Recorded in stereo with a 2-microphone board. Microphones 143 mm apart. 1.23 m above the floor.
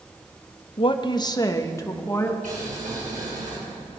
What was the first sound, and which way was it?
A woman speaking, 45° left (ahead or behind).